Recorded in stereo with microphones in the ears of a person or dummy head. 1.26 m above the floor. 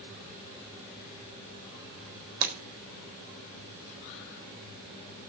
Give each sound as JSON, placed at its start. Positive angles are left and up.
{"t": 2.4, "sound": "breaking glass", "side_deg": -45, "distance_m": 4.0}